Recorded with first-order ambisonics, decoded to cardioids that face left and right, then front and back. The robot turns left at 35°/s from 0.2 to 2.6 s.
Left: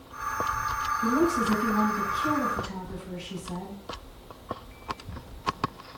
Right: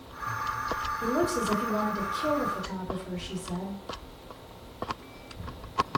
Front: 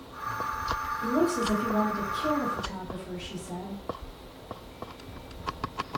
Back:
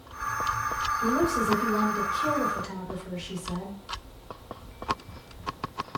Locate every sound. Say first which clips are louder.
1.0 s a woman speaking: left 3 dB, even; 95° right, 1.6 m; by 3.8 s 150° right, 1.6 m